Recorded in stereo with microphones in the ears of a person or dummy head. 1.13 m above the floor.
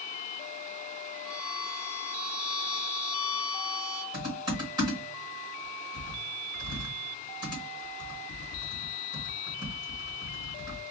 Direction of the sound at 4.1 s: 20° right (ahead or behind).